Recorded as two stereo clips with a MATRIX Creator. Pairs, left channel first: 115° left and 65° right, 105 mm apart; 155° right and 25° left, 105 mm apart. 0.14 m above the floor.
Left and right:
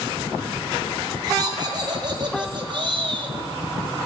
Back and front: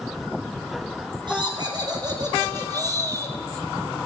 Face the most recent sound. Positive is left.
turn(degrees=-35)